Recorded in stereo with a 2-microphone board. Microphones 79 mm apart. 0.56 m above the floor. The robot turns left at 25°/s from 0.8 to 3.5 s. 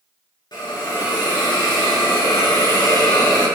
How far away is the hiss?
About 3.5 m.